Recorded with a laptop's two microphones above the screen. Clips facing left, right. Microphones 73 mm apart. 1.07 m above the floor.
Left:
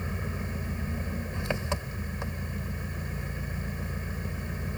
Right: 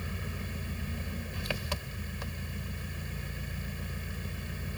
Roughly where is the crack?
No crack in this recording.